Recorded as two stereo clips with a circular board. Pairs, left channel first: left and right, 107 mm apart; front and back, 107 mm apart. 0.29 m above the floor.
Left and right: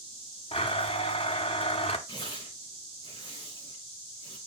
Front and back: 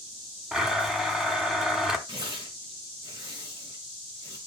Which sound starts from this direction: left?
A blender, at 0.5 s.